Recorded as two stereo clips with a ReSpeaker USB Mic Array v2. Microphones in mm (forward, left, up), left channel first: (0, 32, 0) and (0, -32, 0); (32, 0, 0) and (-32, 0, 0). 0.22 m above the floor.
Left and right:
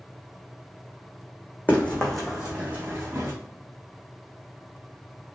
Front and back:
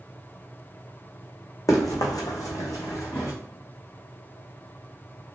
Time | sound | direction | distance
1.7 | running footsteps | 30° left | 0.8 m